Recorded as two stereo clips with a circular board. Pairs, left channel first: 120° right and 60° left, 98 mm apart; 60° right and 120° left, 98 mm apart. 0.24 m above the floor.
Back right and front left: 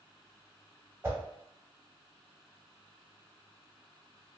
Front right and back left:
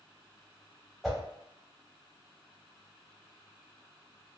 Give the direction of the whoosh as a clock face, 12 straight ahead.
11 o'clock.